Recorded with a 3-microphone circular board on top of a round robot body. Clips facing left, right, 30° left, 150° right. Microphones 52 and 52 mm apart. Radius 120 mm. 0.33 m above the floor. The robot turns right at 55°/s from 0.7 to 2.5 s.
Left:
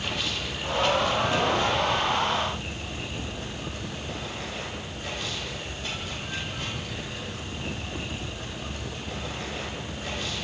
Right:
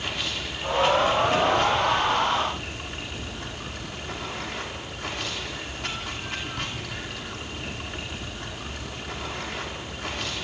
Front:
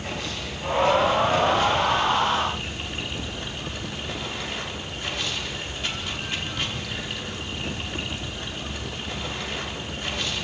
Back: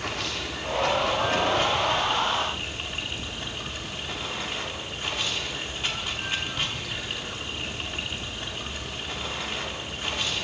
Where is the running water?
Straight behind, 5 m; by 10.4 s 80° right, 5 m.